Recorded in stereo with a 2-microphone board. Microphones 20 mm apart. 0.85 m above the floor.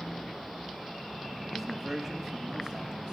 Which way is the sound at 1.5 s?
Centre (ahead or behind).